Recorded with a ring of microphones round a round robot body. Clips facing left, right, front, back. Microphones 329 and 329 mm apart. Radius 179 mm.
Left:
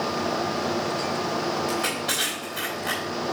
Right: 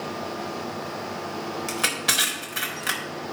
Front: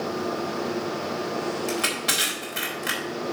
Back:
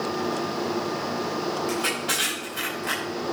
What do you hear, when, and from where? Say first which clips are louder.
1.7 s crushing: left 3 dB, back 1 dB; 50° right, 3.5 m